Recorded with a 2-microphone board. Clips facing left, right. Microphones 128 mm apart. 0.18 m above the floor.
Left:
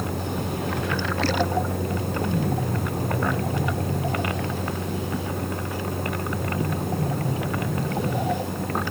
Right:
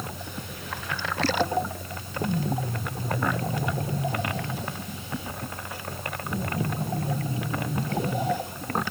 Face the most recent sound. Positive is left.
turn(degrees=65)  # may be behind; listen again after turning